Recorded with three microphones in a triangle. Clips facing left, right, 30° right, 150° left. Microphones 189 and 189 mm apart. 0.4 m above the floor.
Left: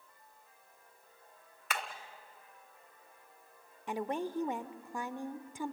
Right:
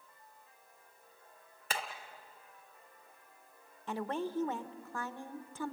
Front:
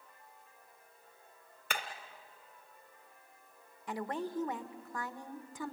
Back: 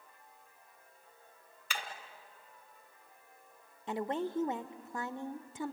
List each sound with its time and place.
1.7 s hammering: 35° right, 1.9 m
3.9 s a woman speaking: 145° left, 0.8 m